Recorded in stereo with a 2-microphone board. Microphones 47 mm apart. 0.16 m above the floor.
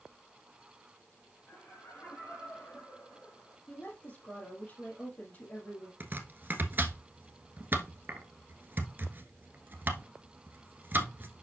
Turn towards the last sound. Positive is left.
turn(degrees=-45)  # may be behind; listen again after turning